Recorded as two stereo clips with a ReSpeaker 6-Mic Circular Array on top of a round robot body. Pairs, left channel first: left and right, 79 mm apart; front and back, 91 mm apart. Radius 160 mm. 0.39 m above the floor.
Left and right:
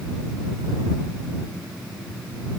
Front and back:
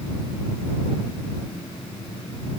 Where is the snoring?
I don't hear snoring.